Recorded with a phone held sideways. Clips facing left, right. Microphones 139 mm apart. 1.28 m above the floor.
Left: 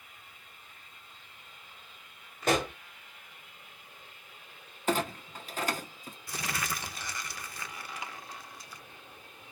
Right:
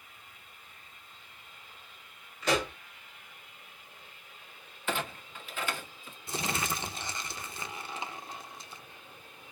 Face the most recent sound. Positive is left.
turn(degrees=-25)  # may be behind; listen again after turning